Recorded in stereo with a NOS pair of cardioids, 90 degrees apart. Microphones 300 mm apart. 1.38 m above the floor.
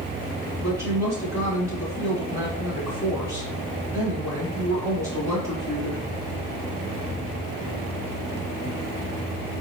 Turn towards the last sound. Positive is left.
turn(degrees=-10)